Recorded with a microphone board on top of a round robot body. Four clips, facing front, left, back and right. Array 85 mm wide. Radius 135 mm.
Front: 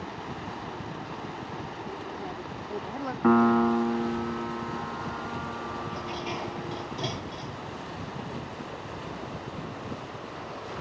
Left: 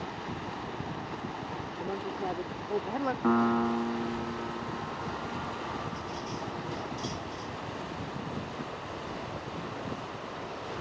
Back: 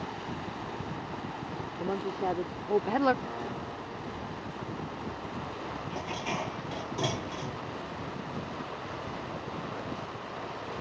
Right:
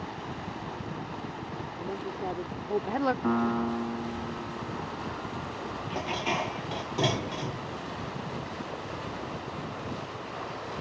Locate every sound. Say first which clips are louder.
1.8 s a woman speaking: even, back 5 dB; 170° left; by 3.1 s 155° right
3.2 s a piano: left 1 dB, front 16 dB; 10° left
5.9 s dishes clattering: right 6 dB, front 1 dB; 100° right